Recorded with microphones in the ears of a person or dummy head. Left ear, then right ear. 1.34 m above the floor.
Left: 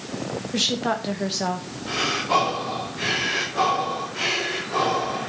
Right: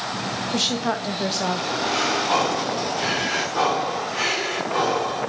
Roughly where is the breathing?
Right.